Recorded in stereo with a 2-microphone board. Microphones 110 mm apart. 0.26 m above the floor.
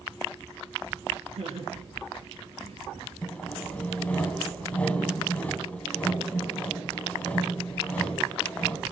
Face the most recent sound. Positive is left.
turn(degrees=15)  # may be behind; listen again after turning